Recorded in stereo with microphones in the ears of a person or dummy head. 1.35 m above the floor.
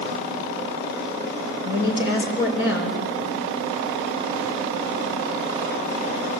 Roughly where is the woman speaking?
Left.